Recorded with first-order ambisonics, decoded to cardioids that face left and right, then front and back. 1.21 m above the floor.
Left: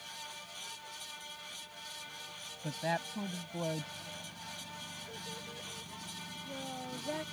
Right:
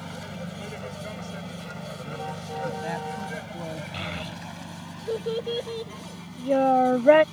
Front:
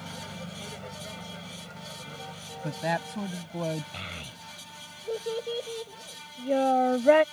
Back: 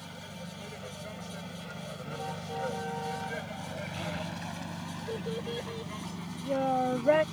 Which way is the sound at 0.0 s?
75° right.